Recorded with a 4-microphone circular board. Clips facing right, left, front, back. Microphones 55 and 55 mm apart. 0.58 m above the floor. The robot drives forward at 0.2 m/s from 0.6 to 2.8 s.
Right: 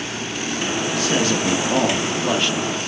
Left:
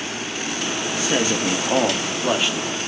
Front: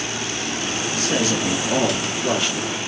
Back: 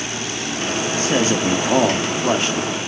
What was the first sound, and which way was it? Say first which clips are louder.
A man speaking: even, back 3 dB; 155° left.